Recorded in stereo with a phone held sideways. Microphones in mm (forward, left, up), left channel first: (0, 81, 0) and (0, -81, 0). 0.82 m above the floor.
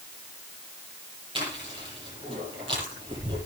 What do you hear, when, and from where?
1.4 s chewing: 30° right (ahead or behind), 10 m